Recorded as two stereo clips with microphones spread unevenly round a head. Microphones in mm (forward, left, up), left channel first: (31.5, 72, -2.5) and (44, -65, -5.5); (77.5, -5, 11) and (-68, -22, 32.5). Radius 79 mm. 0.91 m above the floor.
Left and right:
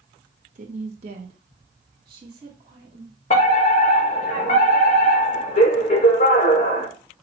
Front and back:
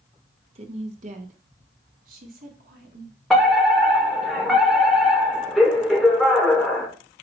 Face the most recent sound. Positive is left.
turn(degrees=85)